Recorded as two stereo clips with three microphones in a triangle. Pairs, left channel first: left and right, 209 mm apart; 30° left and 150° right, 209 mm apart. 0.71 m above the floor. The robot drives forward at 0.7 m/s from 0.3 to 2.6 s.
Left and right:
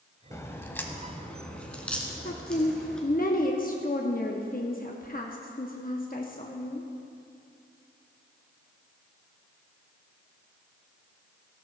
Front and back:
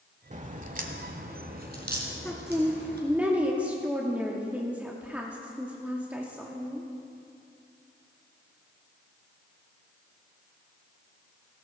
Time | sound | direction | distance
0.3 | a crack | 165° left | 0.7 m
2.2 | a woman speaking | 110° left | 0.8 m